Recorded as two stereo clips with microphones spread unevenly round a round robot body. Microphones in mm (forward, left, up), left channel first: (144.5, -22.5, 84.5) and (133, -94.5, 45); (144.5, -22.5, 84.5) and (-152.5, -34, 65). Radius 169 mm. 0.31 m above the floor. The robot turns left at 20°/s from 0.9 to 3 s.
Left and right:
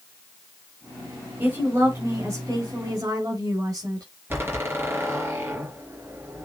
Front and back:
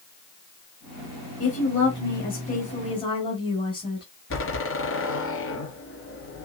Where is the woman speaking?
40° right, 5 m; by 4.1 s 70° right, 5 m.